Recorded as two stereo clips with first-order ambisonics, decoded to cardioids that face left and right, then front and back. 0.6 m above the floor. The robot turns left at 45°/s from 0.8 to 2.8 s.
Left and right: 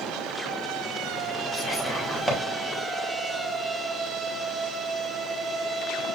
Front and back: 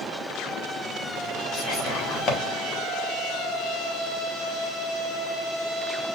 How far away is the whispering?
About 1.4 m.